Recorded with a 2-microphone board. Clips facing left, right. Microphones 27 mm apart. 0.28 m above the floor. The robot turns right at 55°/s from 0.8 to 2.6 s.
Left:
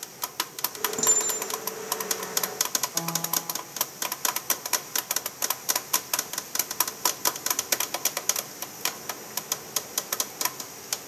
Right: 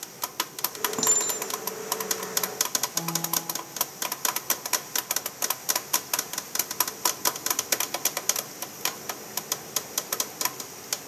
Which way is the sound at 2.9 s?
45° left (ahead or behind).